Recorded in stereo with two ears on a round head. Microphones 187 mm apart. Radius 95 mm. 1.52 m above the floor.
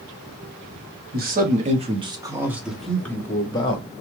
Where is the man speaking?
50° right (ahead or behind), 1.1 m; by 3.9 s 25° left (ahead or behind), 1.2 m.